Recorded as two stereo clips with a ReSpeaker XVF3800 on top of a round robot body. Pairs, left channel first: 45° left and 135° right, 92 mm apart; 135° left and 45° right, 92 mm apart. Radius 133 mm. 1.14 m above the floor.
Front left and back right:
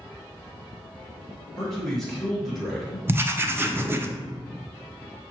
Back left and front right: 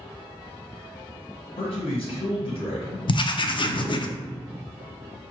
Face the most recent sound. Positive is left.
turn(degrees=160)